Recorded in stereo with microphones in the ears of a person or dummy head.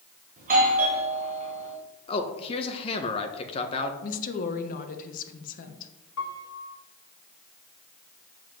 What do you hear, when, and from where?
0.4 s a doorbell: 45° right (ahead or behind), 1.9 m
2.1 s a man speaking: 30° left (ahead or behind), 1.0 m
4.0 s a woman speaking: 45° left (ahead or behind), 1.2 m
6.2 s a piano: 85° left, 1.7 m